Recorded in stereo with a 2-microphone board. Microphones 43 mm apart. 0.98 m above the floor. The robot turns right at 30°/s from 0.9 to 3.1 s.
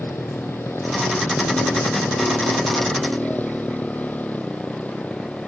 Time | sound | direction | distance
0.0 | a motorcycle | 75° left | ?